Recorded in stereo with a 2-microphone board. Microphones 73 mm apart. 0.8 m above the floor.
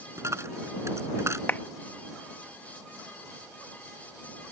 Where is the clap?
25° left (ahead or behind).